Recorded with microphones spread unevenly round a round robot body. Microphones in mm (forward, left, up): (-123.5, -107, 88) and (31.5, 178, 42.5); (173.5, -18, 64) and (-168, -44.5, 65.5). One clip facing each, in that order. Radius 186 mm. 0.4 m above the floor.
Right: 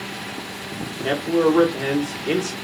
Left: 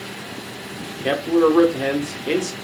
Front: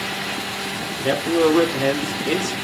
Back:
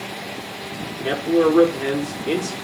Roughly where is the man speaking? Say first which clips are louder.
Left 2 dB, even; ahead left.